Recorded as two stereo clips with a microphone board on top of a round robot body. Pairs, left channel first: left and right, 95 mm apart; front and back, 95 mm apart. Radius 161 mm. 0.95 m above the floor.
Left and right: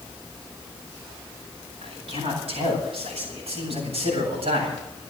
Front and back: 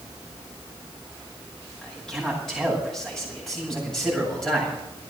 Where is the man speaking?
85° right, 9 m.